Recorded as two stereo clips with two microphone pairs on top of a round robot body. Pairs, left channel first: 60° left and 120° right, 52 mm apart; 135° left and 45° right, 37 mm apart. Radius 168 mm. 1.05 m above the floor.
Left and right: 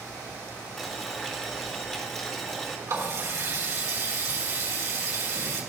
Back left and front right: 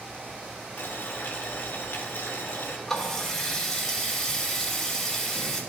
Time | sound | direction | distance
0.8 | boiling | 140° left | 1.8 m
2.9 | a running tap | 145° right | 3 m